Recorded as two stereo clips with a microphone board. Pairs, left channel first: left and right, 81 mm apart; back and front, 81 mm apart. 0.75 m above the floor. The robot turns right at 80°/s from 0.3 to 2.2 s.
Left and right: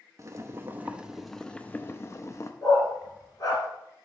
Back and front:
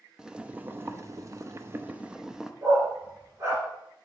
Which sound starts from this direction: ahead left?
A dog barking, at 2.6 s.